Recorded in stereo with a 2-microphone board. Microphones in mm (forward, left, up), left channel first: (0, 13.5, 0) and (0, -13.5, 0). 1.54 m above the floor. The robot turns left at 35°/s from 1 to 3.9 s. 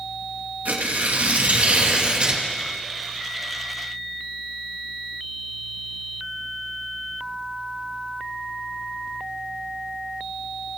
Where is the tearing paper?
100° right, 2.5 m; by 2.4 s 150° right, 2.5 m.